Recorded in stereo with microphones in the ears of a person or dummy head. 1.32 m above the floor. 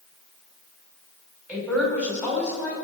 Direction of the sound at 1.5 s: 5° right (ahead or behind).